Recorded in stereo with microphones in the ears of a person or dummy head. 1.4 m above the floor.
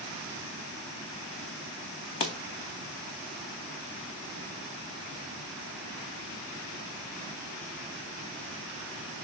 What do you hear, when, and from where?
2.2 s a pop: 20° left (ahead or behind), 0.5 m